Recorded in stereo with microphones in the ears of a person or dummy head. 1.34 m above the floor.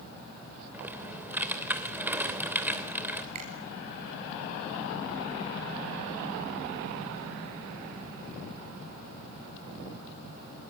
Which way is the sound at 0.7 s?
10° right (ahead or behind).